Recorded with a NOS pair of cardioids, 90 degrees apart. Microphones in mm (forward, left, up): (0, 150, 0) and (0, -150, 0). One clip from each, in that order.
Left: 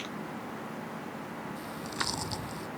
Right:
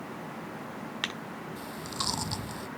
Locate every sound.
1.6 s chewing: 25° right